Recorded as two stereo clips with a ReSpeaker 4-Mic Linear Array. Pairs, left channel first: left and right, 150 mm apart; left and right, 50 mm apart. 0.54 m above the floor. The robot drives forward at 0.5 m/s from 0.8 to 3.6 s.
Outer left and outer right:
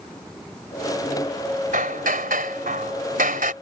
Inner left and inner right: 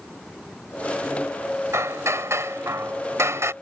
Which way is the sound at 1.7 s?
70° right (ahead or behind).